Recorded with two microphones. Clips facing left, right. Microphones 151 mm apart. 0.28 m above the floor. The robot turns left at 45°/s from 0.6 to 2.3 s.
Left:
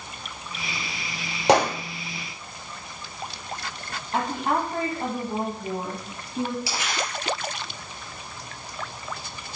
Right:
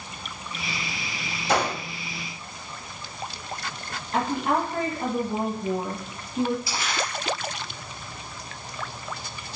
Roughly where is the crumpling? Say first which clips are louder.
Even; left.